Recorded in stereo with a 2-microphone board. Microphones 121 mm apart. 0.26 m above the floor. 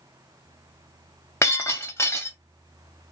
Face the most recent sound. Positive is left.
turn(degrees=20)  # may be behind; listen again after turning